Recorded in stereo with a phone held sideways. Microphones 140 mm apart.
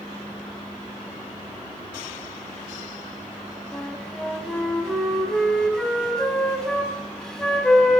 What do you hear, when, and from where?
3.7 s a flute: 5° left (ahead or behind), 1.1 m